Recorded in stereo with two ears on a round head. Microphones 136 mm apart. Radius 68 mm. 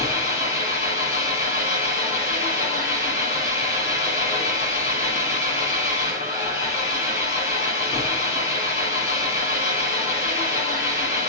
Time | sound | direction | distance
0.0 | an engine running | 45° left (ahead or behind) | 9 m